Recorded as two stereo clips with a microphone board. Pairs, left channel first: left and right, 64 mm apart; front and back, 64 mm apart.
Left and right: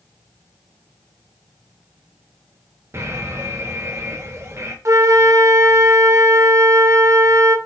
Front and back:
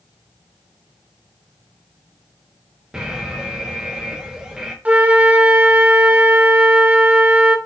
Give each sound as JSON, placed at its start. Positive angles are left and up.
{"t": 2.9, "sound": "an alarm", "azimuth_deg": -105, "distance_m": 0.9}
{"t": 4.8, "sound": "a flute", "azimuth_deg": -115, "distance_m": 0.6}